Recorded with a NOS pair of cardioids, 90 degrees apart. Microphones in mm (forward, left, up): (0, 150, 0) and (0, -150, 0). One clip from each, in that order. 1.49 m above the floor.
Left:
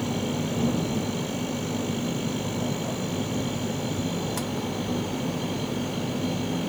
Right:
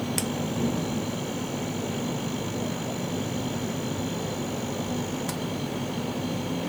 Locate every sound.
0.0 s a machine running: 20° left